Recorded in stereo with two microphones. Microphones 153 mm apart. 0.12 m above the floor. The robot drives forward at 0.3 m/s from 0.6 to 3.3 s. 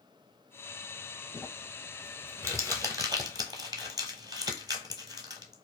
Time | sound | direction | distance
1.3 | crumpling | 15° right (ahead or behind) | 1.2 m